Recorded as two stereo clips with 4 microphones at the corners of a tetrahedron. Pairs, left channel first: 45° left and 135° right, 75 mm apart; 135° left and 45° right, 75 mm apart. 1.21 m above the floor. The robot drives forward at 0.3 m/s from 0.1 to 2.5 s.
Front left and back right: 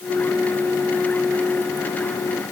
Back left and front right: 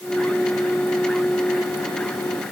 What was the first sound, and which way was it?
Only background noise.